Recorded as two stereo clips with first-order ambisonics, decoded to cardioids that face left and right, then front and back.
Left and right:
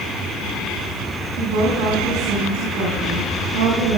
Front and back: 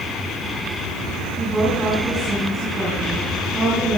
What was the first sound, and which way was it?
A woman speaking, 105° right.